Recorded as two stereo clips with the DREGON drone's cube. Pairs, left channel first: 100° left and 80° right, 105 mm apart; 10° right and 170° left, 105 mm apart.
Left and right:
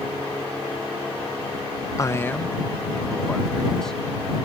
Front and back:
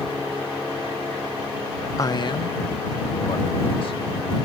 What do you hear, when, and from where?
2.0 s a man speaking: 45° left; by 4.0 s 15° left